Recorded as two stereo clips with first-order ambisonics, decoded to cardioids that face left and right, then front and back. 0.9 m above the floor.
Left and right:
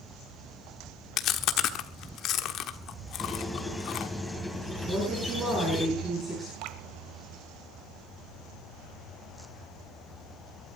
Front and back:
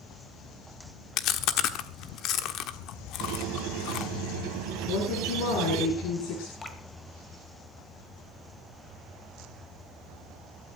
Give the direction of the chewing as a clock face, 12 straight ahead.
11 o'clock.